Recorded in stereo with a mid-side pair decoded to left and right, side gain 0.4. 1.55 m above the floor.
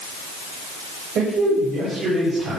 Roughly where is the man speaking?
Ahead right.